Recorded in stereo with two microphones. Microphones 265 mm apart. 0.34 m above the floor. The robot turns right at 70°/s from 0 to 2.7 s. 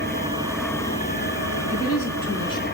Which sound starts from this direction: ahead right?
An engine running, at 0.0 s.